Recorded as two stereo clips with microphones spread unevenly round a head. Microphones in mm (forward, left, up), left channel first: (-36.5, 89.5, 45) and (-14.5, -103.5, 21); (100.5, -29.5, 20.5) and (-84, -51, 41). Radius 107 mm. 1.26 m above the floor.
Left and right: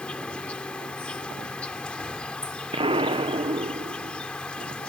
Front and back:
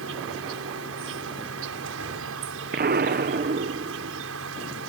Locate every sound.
0.0 s an insect: straight behind
2.7 s an explosion: 140° right